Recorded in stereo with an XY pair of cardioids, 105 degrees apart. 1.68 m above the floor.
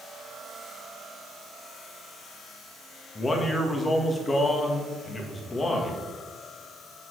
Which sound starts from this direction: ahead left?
A man speaking, at 3.1 s.